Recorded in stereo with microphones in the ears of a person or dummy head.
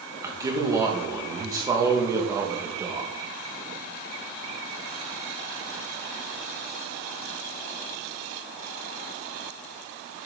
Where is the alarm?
I don't hear an alarm.